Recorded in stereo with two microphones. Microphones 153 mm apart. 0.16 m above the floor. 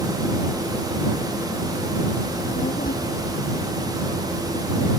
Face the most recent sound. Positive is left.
turn(degrees=75)  # may be behind; listen again after turning